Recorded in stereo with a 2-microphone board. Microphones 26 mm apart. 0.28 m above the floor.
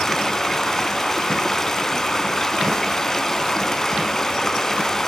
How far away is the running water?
About 1.8 m.